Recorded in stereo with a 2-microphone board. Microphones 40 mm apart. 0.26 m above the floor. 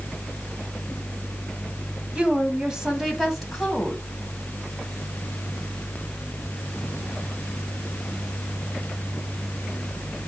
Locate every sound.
2.1 s a woman speaking: 25° right (ahead or behind), 1.7 m; by 4.0 s 5° left (ahead or behind), 1.8 m